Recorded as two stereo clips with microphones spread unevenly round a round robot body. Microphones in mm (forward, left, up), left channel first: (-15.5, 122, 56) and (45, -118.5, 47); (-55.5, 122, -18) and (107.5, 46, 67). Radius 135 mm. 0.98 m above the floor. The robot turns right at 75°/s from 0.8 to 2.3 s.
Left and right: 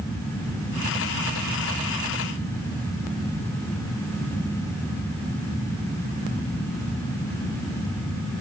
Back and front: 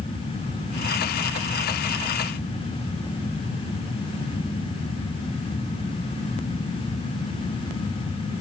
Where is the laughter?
I don't hear laughter.